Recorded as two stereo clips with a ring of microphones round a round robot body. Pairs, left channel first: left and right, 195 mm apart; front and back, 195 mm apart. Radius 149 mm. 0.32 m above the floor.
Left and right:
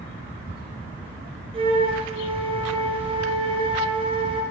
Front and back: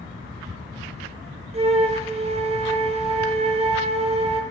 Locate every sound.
1.5 s a flute: 140° right, 1.4 m